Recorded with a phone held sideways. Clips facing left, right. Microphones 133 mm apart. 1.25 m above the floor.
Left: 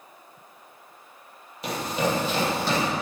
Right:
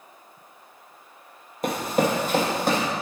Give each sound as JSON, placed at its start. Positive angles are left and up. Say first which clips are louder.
{"t": 1.6, "sound": "running footsteps", "louder": "right 4 dB", "side_deg": -50, "distance_m": 1.9}